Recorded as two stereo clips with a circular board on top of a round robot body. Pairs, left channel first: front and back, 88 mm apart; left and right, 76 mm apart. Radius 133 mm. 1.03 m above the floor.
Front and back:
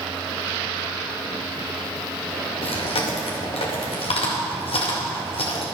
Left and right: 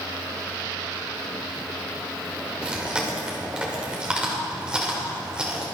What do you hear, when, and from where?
2.6 s chewing: 10° right, 2 m